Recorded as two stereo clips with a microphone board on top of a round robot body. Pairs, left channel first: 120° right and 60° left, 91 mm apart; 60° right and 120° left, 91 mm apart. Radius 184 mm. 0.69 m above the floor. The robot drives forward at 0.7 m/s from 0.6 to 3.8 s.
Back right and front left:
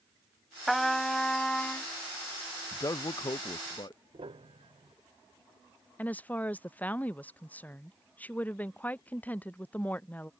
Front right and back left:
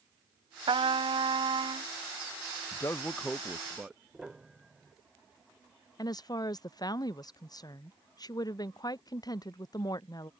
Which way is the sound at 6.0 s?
55° right.